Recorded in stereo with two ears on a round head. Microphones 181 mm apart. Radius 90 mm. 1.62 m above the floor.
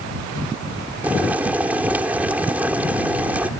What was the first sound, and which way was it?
Boiling, 10° right (ahead or behind).